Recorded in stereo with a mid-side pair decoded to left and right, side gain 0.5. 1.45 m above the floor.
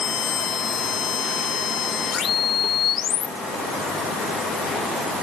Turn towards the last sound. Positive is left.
No sound to turn to.